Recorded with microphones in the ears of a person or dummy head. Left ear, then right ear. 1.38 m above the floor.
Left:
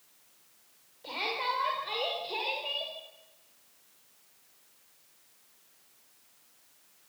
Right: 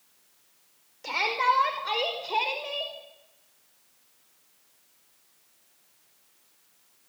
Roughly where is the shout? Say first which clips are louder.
Right 8 dB; right.